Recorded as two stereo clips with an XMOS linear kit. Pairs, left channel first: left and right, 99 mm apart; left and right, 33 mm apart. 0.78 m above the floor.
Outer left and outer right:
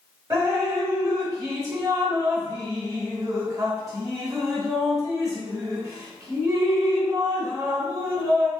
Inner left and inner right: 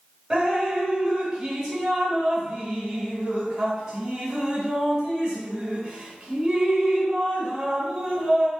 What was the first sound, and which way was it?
Dripping, 30° right (ahead or behind).